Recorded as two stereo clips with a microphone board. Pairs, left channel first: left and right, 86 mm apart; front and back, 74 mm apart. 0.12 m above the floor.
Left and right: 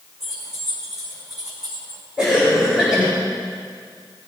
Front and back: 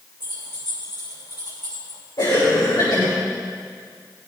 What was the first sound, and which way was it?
Keys jangling, 5° right.